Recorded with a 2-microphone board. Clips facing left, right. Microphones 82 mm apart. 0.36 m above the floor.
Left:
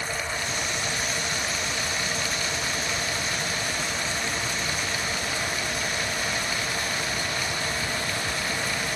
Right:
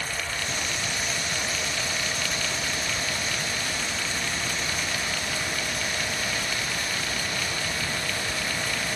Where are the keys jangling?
No keys jangling in this recording.